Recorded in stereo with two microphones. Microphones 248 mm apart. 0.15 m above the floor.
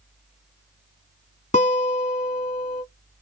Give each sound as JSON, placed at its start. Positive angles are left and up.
{"t": 1.5, "sound": "a guitar", "side_deg": 30, "distance_m": 1.3}